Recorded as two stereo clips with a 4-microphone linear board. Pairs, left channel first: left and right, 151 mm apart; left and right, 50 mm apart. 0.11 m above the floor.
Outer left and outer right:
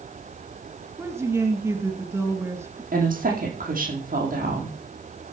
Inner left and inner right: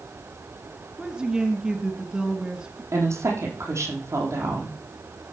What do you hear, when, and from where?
1.0 s a woman speaking: 15° right (ahead or behind), 1.7 m
2.9 s a woman speaking: 70° right (ahead or behind), 4 m